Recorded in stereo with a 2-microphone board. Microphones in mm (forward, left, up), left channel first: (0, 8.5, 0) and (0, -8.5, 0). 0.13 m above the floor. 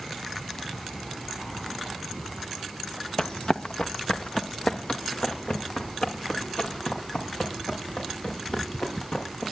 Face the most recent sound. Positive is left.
turn(degrees=75)  # may be behind; listen again after turning